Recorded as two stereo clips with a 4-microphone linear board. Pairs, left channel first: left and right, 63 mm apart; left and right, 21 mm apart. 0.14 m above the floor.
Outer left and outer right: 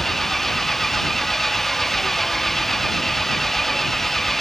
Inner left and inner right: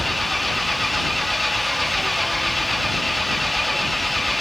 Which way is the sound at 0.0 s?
5° left (ahead or behind).